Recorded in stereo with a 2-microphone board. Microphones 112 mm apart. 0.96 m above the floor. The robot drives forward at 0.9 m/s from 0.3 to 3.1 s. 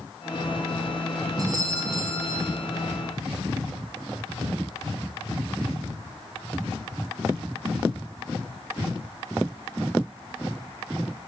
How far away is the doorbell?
About 5.5 m.